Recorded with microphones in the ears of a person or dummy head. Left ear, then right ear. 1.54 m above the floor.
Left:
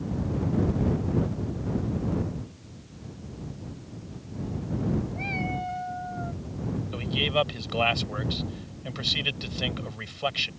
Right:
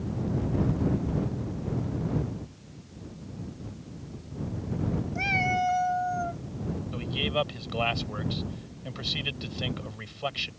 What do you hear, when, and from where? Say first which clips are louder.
5.2 s a cat meowing: right 11 dB; 50° right (ahead or behind); by 6.4 s 35° right (ahead or behind)
6.9 s a man speaking: left 3 dB; 15° left (ahead or behind)